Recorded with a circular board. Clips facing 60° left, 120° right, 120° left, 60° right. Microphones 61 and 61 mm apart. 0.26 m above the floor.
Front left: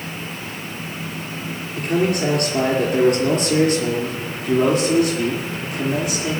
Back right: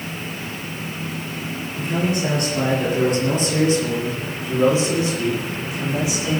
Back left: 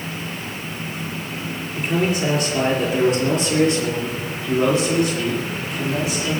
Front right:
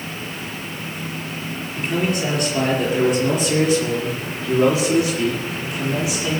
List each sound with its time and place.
1.7 s a man speaking: 30° left, 5.5 m; by 6.4 s 15° left, 8.5 m